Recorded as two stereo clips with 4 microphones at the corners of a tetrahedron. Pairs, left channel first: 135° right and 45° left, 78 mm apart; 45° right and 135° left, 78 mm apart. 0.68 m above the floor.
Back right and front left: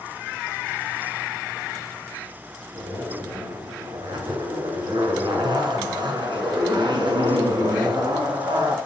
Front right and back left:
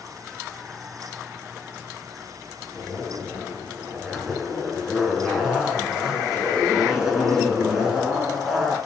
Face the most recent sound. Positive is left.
turn(degrees=50)